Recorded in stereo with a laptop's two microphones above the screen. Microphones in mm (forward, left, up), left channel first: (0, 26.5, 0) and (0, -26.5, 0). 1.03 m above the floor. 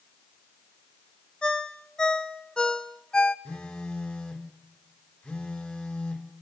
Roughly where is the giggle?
No giggle in this recording.